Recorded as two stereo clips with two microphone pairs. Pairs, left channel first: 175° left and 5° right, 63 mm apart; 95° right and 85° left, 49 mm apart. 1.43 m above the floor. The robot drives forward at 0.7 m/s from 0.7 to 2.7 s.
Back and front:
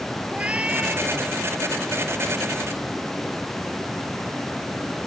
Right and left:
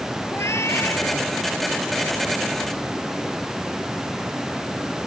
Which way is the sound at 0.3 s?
75° right.